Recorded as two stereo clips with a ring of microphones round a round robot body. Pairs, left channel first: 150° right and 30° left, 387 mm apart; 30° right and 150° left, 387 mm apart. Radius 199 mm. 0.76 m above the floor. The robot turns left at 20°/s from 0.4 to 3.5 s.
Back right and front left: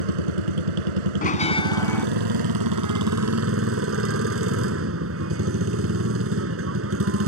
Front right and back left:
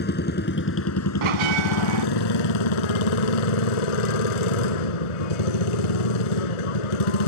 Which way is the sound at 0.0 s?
35° left.